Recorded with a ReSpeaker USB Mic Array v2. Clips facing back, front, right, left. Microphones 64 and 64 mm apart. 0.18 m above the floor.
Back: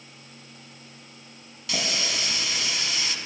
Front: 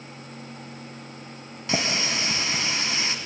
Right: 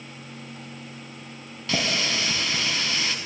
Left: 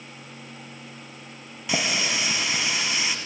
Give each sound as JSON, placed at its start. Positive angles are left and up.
{"t": 1.7, "sound": "a running tap", "azimuth_deg": 20, "distance_m": 1.0}